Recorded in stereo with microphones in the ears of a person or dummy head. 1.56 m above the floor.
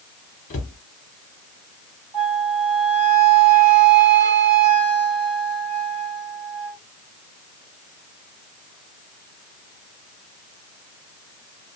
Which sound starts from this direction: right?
A flute, at 2.1 s.